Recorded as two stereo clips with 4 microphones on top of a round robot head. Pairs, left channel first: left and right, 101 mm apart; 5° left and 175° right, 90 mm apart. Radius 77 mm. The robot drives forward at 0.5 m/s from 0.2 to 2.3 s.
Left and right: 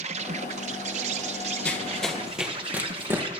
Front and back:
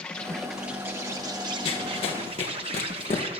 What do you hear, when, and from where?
0.0 s an insect: 80° right, 0.8 m; by 3.4 s 140° right, 1.2 m
1.6 s running footsteps: 15° left, 2.0 m; by 3.3 s 25° right, 2.5 m